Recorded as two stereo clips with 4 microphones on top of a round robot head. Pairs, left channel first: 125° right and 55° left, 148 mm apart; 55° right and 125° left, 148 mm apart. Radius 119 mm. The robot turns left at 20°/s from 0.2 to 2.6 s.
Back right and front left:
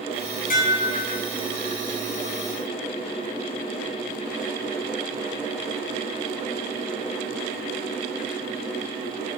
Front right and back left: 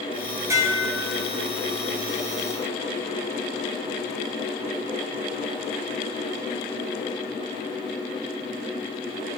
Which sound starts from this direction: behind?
Dishes clattering, at 0.5 s.